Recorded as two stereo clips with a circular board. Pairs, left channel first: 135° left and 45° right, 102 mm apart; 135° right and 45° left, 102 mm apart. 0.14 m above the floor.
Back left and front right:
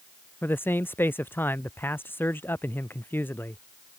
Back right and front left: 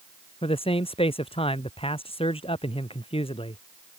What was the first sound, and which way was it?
A man speaking, 155° right.